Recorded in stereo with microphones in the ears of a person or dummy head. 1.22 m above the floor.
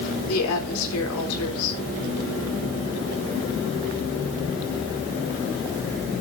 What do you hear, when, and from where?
0.3 s a woman speaking: 85° left, 3.5 m